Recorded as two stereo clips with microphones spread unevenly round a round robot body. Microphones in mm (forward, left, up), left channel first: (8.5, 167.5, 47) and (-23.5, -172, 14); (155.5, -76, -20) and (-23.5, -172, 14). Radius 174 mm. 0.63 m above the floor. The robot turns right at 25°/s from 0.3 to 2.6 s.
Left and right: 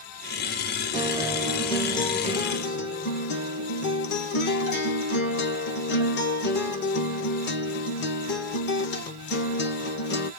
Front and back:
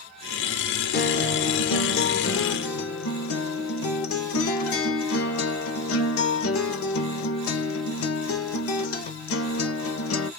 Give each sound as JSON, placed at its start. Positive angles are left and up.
{"t": 0.9, "sound": "a guitar", "azimuth_deg": -20, "distance_m": 0.7}